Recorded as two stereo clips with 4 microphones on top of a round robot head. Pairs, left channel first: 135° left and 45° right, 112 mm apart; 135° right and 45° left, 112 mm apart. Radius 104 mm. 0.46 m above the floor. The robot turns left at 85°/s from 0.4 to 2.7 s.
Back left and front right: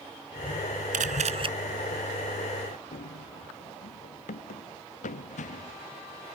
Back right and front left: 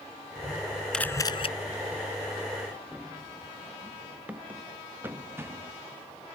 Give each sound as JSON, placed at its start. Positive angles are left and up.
{"t": 0.9, "sound": "a camera shutter", "azimuth_deg": -50}
{"t": 2.9, "sound": "running footsteps", "azimuth_deg": 140}